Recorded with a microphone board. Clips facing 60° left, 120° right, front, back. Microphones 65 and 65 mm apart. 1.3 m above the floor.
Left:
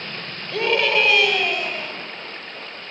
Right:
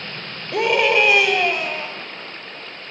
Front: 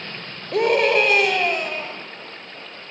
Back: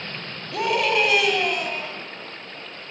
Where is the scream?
45° right, 4.5 m; by 1.9 s 55° right, 6 m.